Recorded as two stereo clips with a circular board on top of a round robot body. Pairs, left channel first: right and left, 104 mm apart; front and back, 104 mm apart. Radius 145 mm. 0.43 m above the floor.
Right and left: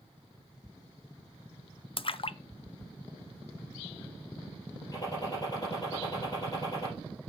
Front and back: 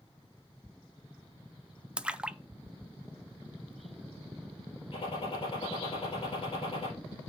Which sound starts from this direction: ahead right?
A gunshot, at 4.9 s.